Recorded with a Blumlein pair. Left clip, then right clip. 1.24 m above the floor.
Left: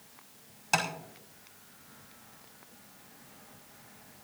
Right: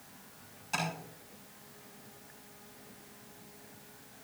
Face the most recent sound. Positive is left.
turn(degrees=60)